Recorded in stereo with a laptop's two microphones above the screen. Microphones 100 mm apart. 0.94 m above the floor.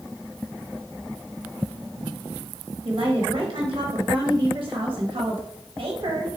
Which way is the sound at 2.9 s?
55° right (ahead or behind).